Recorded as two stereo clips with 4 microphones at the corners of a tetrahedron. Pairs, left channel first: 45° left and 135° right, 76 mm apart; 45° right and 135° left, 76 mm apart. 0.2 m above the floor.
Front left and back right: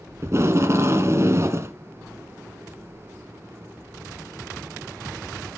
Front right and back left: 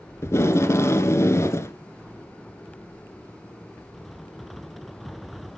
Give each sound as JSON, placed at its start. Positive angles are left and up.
{"t": 0.2, "sound": "tape being pulled", "azimuth_deg": -90, "distance_m": 1.5}